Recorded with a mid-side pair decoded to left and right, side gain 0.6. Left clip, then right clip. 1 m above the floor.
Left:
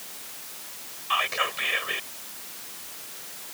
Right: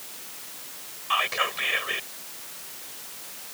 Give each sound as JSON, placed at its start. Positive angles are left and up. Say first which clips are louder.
{"t": 1.1, "sound": "whispering", "louder": "right 1 dB", "azimuth_deg": -5}